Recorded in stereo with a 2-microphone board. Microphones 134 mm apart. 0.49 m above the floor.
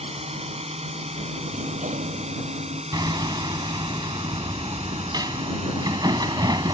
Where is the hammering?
30° right (ahead or behind).